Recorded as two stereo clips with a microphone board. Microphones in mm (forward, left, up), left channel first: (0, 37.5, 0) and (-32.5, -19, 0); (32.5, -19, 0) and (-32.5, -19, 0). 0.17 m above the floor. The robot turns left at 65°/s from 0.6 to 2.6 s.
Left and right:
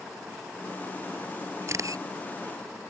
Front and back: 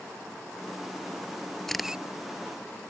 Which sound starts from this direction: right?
A camera shutter, at 1.7 s.